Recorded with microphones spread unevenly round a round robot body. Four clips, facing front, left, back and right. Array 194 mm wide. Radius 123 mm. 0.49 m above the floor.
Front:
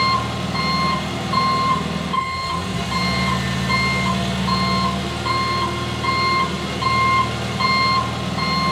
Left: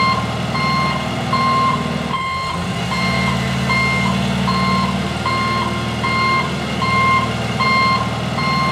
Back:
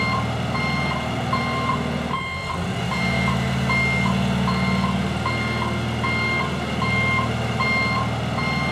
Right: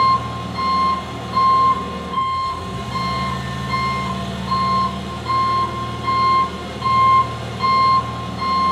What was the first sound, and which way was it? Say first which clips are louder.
An engine running: right 1 dB, front 4 dB; 90° left.